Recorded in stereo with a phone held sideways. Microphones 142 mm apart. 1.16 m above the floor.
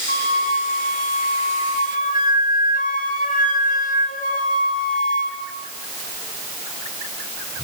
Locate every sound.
0.1 s a flute: 85° left, 5 m